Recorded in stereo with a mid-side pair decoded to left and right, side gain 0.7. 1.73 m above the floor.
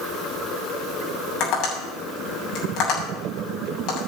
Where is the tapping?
55° left, 7.5 m.